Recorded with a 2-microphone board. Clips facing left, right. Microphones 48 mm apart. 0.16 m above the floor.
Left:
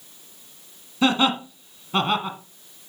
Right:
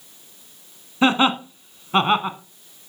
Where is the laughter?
30° right (ahead or behind), 1.2 m.